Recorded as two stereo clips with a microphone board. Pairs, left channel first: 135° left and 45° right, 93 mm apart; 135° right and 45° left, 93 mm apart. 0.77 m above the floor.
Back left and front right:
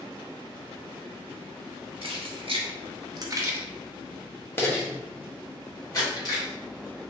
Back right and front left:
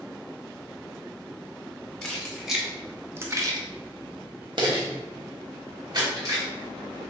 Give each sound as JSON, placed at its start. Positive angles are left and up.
{"t": 2.0, "sound": "keys jangling", "azimuth_deg": -50, "distance_m": 1.0}